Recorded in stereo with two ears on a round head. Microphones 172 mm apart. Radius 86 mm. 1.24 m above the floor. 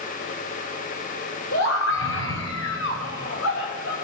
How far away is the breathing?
I don't hear breathing.